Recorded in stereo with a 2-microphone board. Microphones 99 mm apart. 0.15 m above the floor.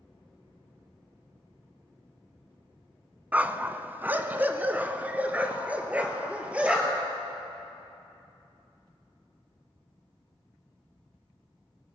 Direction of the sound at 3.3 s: 15° right (ahead or behind).